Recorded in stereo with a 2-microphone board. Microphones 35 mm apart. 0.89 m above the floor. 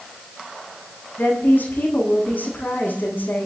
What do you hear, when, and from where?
1.2 s a woman speaking: 85° left, 9.5 m